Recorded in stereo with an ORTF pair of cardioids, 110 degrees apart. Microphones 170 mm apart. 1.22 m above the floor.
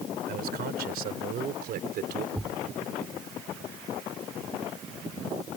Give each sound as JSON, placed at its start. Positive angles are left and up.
{"t": 0.3, "sound": "a man speaking", "azimuth_deg": -65}
{"t": 2.4, "sound": "a thud", "azimuth_deg": -5}